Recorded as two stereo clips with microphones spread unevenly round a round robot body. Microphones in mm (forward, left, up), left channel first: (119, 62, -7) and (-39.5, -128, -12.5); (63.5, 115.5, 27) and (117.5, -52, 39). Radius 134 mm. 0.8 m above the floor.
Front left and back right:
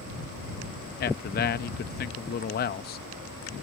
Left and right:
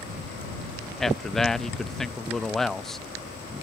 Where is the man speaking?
25° left.